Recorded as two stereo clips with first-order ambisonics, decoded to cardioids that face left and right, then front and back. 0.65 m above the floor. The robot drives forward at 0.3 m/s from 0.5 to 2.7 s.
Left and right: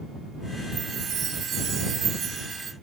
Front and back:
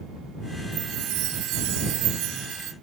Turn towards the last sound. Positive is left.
turn(degrees=-150)